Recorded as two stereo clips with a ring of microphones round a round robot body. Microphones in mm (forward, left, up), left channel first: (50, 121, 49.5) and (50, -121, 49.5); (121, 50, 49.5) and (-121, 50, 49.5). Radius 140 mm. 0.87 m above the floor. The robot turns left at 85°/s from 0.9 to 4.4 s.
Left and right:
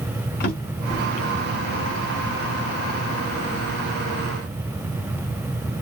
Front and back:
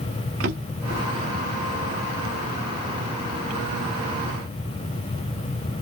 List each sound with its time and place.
0.4 s a drawer: 145° left, 1.3 m; by 1.0 s 135° left, 1.3 m